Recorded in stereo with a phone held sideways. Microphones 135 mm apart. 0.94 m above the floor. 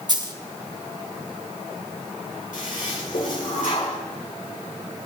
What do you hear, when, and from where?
0.1 s a dropped coin: 35° right (ahead or behind), 1.1 m
2.5 s a toilet flushing: 85° left, 3 m